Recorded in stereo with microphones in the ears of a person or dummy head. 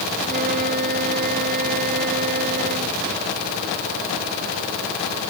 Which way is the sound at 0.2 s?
45° right (ahead or behind).